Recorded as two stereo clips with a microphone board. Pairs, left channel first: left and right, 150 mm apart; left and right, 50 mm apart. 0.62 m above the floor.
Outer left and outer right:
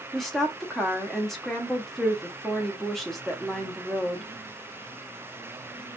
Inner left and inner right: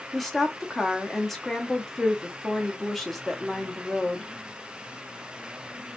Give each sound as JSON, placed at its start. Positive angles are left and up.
{"t": 0.1, "sound": "a woman speaking", "side_deg": 0, "distance_m": 0.6}